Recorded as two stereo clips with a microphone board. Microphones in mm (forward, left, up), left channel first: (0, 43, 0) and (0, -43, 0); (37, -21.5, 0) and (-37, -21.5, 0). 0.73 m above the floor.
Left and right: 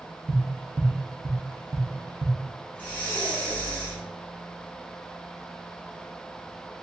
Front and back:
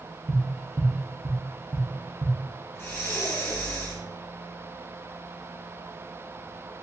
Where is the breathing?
25° left, 1.5 m.